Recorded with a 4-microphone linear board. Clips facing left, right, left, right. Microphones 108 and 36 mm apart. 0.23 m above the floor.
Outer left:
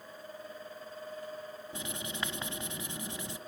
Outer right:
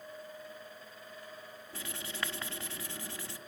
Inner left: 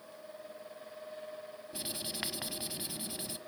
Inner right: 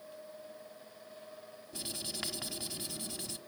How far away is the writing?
About 1.1 m.